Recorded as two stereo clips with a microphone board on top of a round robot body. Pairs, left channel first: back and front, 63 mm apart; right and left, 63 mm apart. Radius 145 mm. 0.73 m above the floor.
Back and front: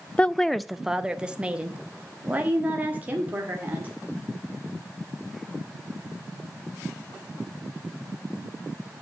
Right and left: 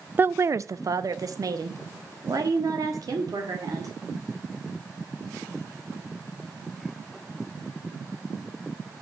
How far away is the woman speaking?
About 0.5 m.